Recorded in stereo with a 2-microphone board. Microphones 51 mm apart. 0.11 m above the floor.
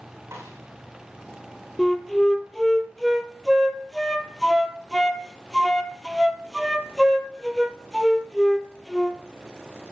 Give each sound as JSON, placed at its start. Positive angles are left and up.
{"t": 0.3, "sound": "a snare drum", "side_deg": -60, "distance_m": 5.5}
{"t": 1.8, "sound": "a flute", "side_deg": 5, "distance_m": 0.7}